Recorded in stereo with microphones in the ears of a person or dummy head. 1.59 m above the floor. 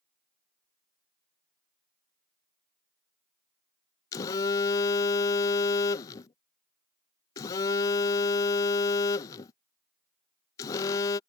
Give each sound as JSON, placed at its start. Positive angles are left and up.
{"t": 4.1, "sound": "a phone buzzing", "side_deg": 25}